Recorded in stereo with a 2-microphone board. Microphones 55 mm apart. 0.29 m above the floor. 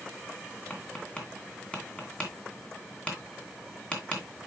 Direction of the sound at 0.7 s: 20° left (ahead or behind).